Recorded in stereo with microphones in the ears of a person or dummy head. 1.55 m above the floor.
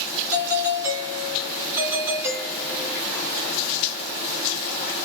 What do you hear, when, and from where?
0.3 s a doorbell: 10° right (ahead or behind), 2 m